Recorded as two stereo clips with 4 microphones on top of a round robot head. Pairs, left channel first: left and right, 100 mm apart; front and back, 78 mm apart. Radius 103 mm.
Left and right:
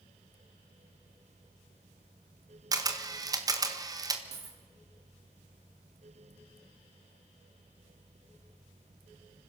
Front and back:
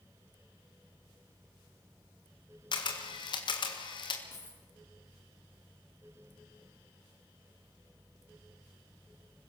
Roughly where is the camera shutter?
Ahead right.